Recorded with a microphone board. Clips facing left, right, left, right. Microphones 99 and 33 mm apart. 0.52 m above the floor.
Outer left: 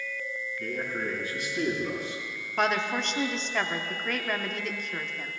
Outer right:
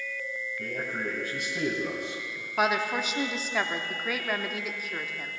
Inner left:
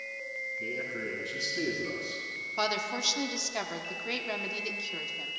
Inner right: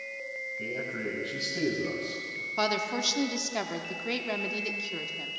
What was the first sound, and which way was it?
A man speaking, 50° right (ahead or behind).